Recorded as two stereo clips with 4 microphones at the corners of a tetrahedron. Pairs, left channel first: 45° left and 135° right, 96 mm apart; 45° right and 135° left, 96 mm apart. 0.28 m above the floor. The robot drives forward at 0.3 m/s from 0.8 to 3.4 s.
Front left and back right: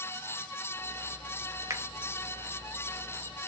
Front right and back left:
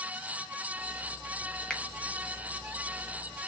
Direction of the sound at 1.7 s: 120° right.